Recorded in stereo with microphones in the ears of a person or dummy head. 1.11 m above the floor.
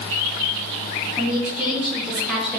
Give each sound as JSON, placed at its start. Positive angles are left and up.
{"t": 1.2, "sound": "a woman speaking", "side_deg": -10, "distance_m": 3.0}